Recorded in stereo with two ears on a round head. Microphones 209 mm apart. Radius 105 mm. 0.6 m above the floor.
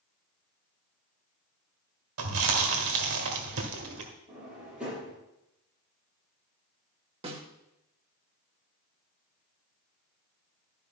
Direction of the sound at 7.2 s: 25° right (ahead or behind).